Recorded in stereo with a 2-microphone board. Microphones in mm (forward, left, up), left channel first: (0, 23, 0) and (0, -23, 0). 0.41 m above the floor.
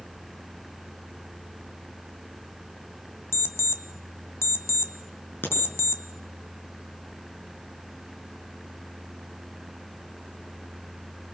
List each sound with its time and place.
3.3 s an alarm clock: 70° left (ahead or behind), 1.4 m
5.4 s a crack: 50° left (ahead or behind), 6.5 m